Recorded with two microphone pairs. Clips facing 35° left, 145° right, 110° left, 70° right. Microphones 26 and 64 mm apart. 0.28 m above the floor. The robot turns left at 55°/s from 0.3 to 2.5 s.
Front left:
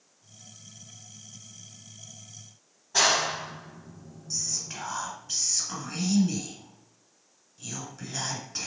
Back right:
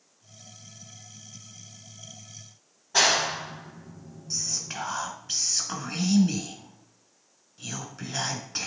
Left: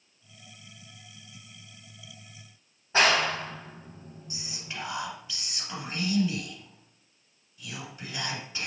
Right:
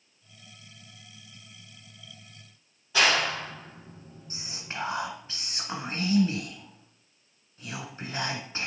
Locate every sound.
2.9 s a clap: 150° left, 1.8 m
4.3 s whispering: 100° right, 1.6 m